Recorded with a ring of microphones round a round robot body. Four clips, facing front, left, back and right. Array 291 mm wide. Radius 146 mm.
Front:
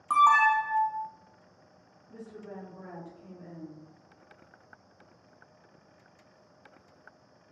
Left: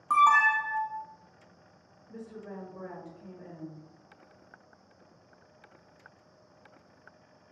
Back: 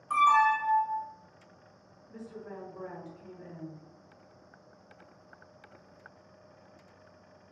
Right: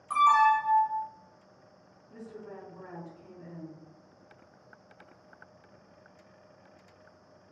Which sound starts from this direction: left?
A woman speaking, at 2.1 s.